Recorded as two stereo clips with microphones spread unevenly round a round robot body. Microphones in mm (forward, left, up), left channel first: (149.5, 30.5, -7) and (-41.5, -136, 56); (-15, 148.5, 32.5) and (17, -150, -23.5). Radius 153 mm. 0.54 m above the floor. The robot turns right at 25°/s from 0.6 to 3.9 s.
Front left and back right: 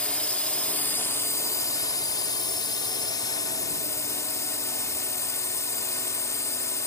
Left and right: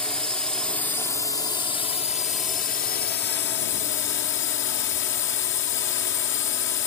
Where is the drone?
10° right; by 6.9 s 70° left.